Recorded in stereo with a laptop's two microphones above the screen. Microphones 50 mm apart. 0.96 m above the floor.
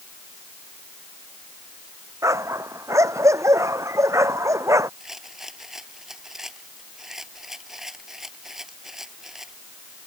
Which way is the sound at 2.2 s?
85° right.